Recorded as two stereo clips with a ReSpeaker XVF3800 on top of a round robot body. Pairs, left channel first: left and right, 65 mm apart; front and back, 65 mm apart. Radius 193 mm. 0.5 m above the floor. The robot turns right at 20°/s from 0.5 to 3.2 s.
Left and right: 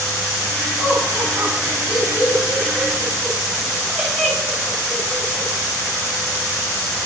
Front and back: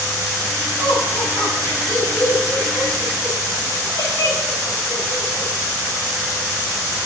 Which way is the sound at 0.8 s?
50° right.